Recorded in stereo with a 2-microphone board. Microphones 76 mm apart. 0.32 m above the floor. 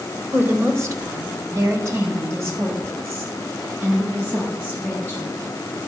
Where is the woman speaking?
35° right (ahead or behind), 1.0 m; by 5.3 s 25° right (ahead or behind), 2.5 m.